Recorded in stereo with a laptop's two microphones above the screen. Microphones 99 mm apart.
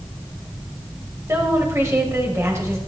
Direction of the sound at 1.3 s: 30° right (ahead or behind).